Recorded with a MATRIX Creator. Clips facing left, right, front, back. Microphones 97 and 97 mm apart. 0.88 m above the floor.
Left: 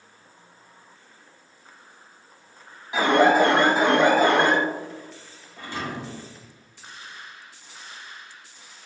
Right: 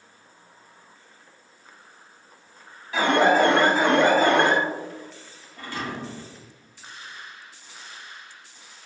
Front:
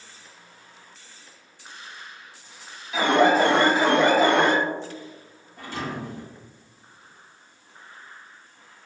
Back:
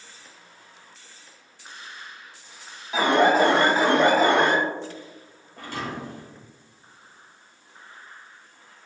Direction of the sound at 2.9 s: 150° left.